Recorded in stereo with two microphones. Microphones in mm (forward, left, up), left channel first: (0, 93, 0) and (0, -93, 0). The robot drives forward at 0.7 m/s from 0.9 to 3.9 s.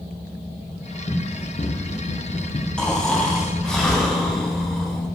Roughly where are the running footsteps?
Left.